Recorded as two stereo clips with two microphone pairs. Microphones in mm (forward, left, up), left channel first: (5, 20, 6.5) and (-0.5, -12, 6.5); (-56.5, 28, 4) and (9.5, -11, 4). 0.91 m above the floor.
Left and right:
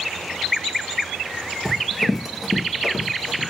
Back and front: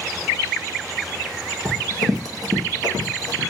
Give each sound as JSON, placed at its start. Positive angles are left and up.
{"t": 1.6, "sound": "running footsteps", "azimuth_deg": -5, "distance_m": 1.4}